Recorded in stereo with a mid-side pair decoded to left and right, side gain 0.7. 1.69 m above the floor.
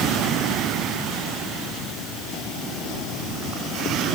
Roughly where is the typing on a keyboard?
I don't hear typing on a keyboard.